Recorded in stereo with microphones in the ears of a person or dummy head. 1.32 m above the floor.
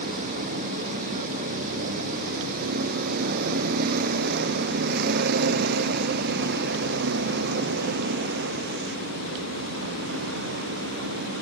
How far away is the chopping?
No chopping in this recording.